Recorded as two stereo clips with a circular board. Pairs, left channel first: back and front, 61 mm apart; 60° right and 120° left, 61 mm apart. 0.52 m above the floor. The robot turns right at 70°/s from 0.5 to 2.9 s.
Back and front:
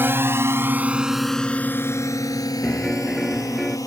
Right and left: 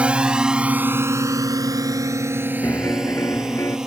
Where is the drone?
50° left; by 3.9 s 160° right.